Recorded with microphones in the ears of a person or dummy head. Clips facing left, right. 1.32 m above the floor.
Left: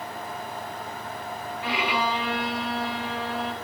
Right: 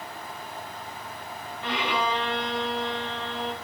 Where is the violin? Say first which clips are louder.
Even; 10° left (ahead or behind), 0.8 m.